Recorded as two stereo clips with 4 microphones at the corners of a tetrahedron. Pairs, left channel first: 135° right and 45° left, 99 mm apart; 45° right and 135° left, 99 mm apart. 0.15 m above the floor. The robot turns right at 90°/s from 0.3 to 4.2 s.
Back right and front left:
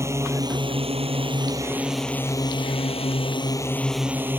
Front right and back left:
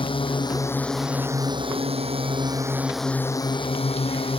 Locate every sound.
0.0 s a drone: 15° right; by 4.4 s 25° right